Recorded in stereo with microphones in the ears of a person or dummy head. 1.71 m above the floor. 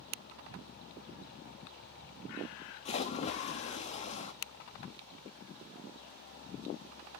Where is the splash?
35° left (ahead or behind), 0.9 m.